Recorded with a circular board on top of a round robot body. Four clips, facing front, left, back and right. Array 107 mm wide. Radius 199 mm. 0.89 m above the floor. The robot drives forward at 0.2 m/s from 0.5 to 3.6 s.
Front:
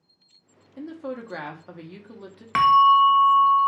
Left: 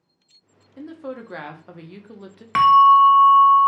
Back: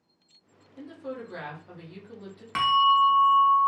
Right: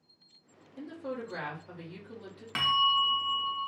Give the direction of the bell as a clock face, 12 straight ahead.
10 o'clock.